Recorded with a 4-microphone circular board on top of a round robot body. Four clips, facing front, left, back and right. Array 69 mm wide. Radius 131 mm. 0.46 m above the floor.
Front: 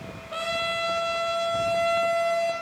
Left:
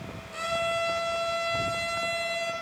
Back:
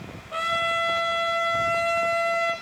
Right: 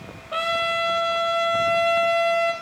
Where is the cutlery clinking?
I don't hear cutlery clinking.